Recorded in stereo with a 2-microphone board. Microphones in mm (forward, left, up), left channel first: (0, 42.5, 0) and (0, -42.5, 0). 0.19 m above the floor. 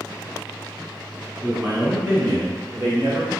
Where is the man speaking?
15° right (ahead or behind), 1.8 m; by 3.3 s 35° right (ahead or behind), 2.5 m.